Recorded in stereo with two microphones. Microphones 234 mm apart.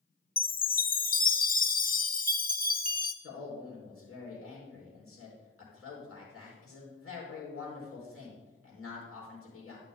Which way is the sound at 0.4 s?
40° left (ahead or behind).